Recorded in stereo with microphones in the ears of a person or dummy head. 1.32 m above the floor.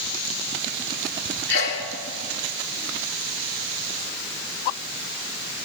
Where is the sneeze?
60° left (ahead or behind), 4 m.